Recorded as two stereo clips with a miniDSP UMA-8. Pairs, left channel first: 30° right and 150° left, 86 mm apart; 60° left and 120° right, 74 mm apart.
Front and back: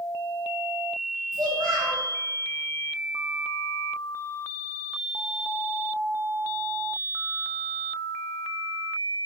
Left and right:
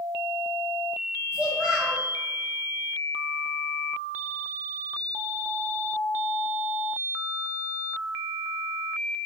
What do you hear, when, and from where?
1.3 s a child speaking: 165° left, 1.5 m